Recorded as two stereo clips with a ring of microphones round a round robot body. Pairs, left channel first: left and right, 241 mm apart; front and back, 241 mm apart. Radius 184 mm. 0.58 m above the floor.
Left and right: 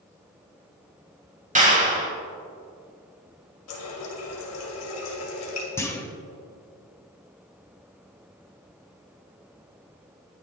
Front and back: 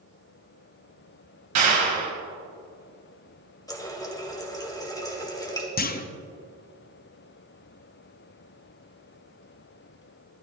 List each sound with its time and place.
1.6 s a clap: 150° right, 3 m
3.7 s a running tap: 75° left, 2 m
5.8 s a clunk: 15° left, 0.9 m